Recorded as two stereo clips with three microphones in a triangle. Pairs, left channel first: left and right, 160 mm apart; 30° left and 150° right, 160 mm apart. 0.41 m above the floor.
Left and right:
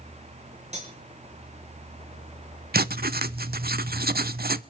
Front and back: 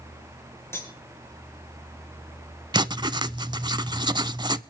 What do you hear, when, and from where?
0.7 s cutlery clinking: 45° right, 4.5 m
2.7 s writing: 85° right, 0.5 m